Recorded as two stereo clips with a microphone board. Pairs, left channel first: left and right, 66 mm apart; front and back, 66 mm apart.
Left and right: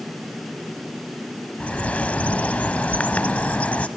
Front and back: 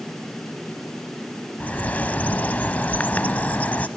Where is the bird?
40° left, 0.7 m.